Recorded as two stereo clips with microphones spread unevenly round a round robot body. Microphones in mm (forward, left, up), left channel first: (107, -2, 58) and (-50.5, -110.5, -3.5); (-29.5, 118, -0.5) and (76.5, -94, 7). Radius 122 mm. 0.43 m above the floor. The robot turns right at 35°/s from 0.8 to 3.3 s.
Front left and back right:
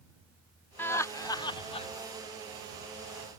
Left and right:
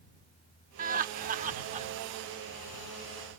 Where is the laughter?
70° right; by 1.9 s 30° right.